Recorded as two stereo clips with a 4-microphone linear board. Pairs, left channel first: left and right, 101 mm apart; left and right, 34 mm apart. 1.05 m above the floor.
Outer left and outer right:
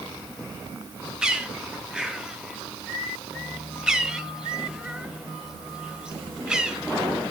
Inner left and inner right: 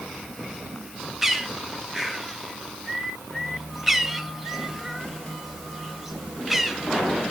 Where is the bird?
10° right (ahead or behind), 1.5 m.